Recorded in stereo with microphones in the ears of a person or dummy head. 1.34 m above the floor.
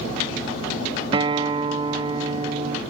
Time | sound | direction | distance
1.1 | a guitar | 25° right (ahead or behind) | 0.7 m